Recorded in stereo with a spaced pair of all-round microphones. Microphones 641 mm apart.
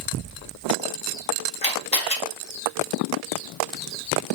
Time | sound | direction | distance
1.6 | a camera shutter | 10° left (ahead or behind) | 2 m